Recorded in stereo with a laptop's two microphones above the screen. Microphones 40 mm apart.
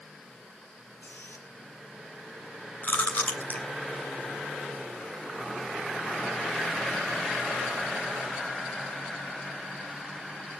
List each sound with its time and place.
1.0 s a squeak: 75° left (ahead or behind), 5.5 m
2.8 s chewing: 50° left (ahead or behind), 3 m